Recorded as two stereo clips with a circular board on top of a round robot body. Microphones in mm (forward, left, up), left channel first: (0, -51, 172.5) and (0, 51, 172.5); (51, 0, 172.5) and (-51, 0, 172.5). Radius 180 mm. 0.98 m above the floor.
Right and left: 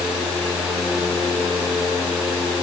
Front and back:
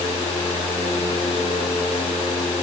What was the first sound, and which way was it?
Only background noise.